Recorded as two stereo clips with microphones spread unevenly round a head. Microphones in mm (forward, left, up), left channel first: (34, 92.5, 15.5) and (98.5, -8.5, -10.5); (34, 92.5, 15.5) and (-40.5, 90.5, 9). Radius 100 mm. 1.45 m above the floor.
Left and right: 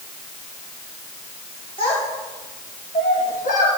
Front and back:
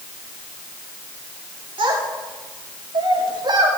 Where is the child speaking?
175° right, 2.5 m; by 3.7 s 155° left, 2.5 m.